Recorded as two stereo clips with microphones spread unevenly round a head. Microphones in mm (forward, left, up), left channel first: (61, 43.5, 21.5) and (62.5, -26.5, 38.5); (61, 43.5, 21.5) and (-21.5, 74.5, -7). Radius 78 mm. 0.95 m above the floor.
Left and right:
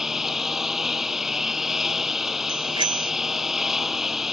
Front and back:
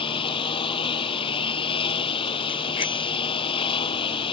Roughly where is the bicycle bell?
Right.